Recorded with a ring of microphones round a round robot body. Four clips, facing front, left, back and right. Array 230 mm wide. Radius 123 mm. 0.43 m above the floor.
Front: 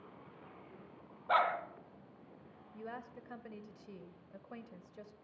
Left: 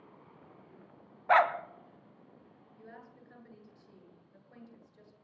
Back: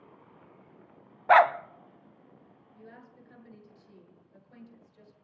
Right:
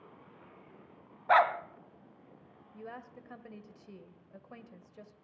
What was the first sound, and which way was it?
A dog barking, 175° left.